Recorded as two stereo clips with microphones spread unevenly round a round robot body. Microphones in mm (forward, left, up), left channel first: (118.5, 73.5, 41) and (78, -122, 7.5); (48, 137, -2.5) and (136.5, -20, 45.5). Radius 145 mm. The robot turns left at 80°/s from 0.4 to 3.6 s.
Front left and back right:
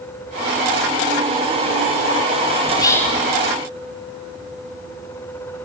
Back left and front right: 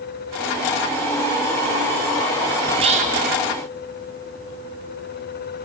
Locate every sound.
2.7 s whispering: 15° left, 0.8 m; by 3.2 s 30° right, 0.8 m